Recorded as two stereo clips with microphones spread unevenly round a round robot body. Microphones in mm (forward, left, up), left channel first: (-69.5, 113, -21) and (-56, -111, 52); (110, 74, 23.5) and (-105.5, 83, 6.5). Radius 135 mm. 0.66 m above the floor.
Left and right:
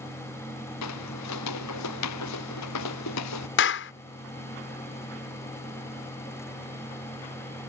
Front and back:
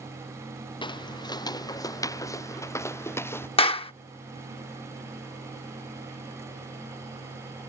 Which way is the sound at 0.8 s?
65° left.